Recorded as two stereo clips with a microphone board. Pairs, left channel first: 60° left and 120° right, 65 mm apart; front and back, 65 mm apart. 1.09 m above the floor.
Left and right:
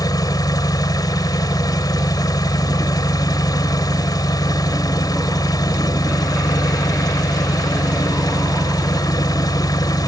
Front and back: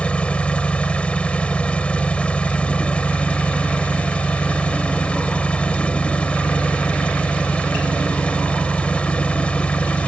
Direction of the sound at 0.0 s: 70° left.